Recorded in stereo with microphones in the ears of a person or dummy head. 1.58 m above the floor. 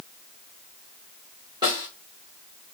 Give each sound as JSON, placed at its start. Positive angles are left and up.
{"t": 1.6, "sound": "a snare drum", "side_deg": -20, "distance_m": 3.0}